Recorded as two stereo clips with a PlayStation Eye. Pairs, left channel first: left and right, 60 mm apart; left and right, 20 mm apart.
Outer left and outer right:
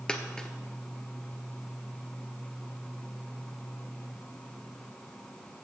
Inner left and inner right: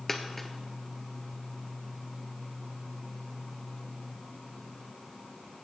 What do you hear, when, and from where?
0.1 s a dropped coin: 15° left (ahead or behind), 1.0 m